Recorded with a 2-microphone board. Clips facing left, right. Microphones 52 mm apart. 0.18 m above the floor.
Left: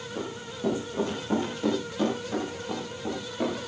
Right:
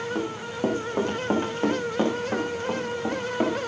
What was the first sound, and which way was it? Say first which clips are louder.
Running footsteps: right 6 dB; 55° right (ahead or behind).